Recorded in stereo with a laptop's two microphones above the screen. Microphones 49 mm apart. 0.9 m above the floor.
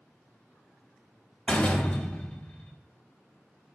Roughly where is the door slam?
Left.